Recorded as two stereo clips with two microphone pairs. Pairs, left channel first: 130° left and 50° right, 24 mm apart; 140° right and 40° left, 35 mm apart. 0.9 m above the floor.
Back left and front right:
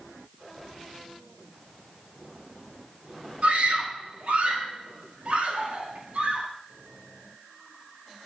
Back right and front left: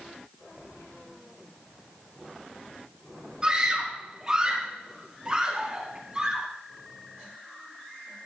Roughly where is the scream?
Ahead right.